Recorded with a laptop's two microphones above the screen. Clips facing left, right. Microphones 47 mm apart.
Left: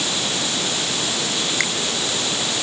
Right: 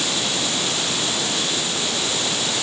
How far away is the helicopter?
I don't hear a helicopter.